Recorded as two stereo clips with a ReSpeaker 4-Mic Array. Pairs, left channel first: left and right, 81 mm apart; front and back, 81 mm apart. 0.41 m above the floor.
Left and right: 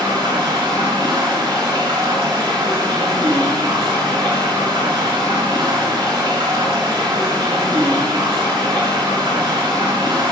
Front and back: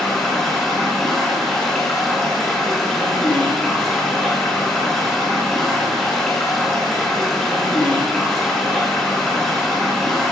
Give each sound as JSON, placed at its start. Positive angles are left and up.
{"t": 0.0, "sound": "running water", "azimuth_deg": -85, "distance_m": 4.0}